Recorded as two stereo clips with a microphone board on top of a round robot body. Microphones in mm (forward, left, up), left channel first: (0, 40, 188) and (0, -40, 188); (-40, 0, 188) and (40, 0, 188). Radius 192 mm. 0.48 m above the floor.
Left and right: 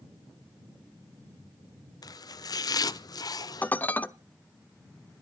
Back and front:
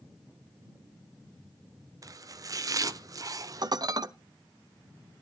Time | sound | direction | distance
2.0 | chopping | 50° left | 0.7 m
3.6 | dishes clattering | 25° left | 0.9 m